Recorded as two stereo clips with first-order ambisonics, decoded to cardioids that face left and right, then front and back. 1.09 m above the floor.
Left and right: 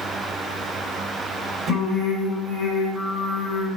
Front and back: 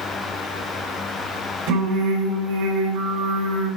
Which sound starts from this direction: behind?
Singing, at 1.7 s.